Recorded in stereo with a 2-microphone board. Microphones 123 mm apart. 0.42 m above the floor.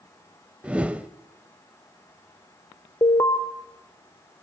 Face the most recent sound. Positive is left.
turn(degrees=30)  # may be behind; listen again after turning